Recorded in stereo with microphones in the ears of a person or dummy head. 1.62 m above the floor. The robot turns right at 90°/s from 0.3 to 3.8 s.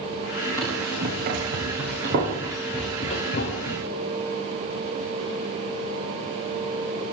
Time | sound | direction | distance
0.6 | running footsteps | 15° left (ahead or behind) | 8.5 m